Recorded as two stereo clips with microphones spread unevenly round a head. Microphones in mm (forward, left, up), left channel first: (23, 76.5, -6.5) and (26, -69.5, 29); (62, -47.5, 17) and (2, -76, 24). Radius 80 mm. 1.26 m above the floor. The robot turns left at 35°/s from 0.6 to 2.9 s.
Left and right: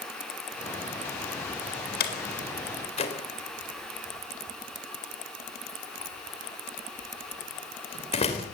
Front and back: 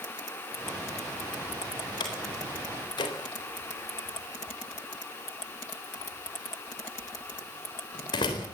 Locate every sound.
2.0 s a door slam: 70° left, 3.5 m; by 8.5 s 40° left, 3.5 m